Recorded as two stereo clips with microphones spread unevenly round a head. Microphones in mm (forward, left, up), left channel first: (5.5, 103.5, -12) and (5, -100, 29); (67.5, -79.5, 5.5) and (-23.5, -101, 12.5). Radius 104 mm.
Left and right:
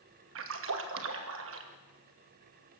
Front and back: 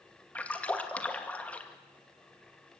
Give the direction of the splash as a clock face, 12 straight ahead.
2 o'clock.